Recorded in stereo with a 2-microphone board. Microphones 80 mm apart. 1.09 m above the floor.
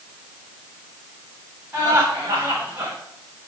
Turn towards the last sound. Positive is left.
turn(degrees=-25)  # may be behind; listen again after turning